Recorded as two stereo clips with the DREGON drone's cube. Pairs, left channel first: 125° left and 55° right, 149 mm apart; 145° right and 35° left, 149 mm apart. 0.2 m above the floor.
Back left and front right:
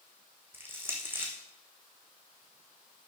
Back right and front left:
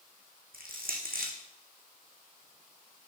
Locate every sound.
0.5 s crushing: 20° left, 2.5 m